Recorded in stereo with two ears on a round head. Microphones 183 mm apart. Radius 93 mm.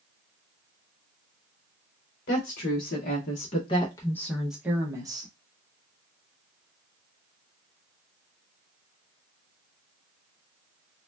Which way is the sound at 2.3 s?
50° left (ahead or behind).